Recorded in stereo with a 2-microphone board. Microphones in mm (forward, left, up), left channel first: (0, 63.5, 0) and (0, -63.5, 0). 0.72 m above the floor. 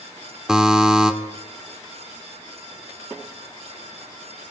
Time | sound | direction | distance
0.5 | a buzzer | 5° right (ahead or behind) | 1.6 m